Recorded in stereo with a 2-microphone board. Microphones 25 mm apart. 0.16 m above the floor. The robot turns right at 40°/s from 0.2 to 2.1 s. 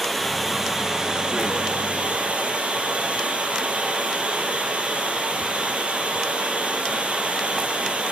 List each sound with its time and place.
0.0 s running water: 175° left, 3 m; by 8.1 s 110° right, 3 m